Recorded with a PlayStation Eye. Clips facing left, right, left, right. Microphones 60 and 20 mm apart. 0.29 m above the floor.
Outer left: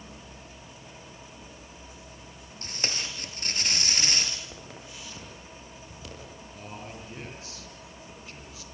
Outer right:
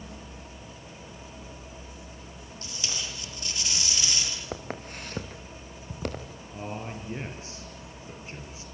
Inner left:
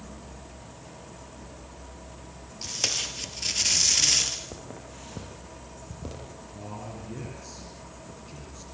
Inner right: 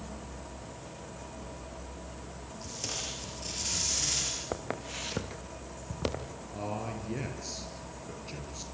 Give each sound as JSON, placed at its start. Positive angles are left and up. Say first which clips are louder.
{"t": 2.6, "sound": "tape being pulled", "louder": "outer left 3 dB, inner left 9 dB", "side_deg": 45, "distance_m": 4.0}
{"t": 4.5, "sound": "footsteps", "louder": "outer right 7 dB, inner right 6 dB", "side_deg": -50, "distance_m": 3.5}
{"t": 6.5, "sound": "a man speaking", "louder": "outer right 6 dB, inner right 4 dB", "side_deg": -30, "distance_m": 5.5}